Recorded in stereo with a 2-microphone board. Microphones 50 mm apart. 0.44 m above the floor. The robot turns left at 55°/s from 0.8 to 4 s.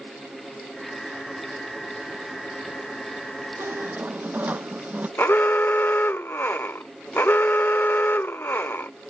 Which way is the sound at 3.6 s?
55° right (ahead or behind).